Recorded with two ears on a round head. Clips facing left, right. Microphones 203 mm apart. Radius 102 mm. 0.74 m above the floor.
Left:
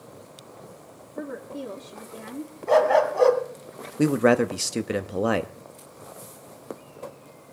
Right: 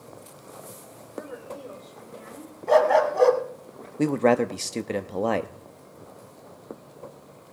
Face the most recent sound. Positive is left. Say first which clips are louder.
# left 1 dB
turn(degrees=10)  # may be behind; listen again after turning